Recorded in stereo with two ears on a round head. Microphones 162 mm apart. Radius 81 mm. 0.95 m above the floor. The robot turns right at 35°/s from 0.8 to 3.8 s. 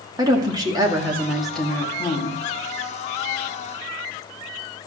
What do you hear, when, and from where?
0.2 s a woman speaking: 20° right, 2 m; by 2.4 s 35° left, 2 m